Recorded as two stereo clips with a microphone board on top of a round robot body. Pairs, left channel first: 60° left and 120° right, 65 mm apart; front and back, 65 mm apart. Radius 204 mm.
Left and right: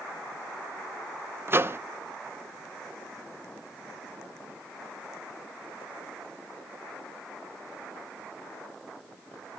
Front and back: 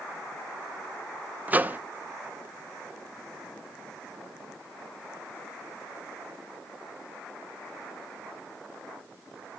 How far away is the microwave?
About 0.7 m.